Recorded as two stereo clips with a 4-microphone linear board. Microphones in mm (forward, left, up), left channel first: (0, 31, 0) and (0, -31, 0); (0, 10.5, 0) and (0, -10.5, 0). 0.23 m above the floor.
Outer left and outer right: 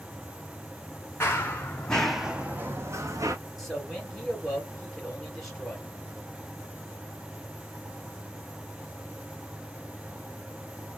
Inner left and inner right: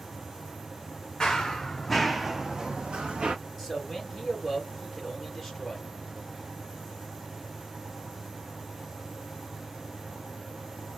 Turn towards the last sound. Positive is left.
turn(degrees=10)  # may be behind; listen again after turning